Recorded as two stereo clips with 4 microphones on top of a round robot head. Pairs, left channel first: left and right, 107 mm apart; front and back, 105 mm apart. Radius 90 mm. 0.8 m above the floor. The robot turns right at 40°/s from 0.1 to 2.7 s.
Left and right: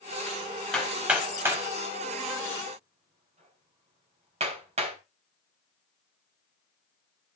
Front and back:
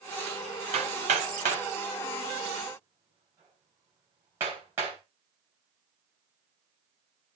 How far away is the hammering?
About 3.5 m.